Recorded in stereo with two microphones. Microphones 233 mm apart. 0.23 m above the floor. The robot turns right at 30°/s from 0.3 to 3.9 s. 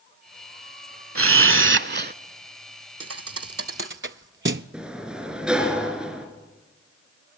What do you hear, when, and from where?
1.1 s a camera shutter: 70° right (ahead or behind), 0.6 m; by 2.1 s 45° right (ahead or behind), 0.6 m
3.0 s a thud: 80° right, 0.6 m; by 4.6 s 55° right (ahead or behind), 0.6 m
4.7 s a sliding door: 5° right (ahead or behind), 3 m